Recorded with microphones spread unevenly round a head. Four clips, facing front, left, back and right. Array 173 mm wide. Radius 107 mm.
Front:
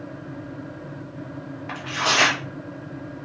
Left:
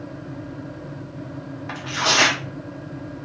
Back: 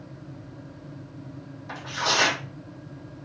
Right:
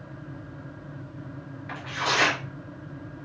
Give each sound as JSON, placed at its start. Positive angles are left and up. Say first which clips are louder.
{"t": 1.7, "sound": "tearing paper", "louder": "left 4 dB, front 3 dB", "azimuth_deg": 50, "distance_m": 2.5}